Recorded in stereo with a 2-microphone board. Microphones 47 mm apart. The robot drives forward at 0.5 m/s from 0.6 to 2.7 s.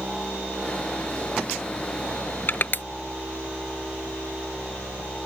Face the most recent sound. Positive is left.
turn(degrees=45)  # may be behind; listen again after turning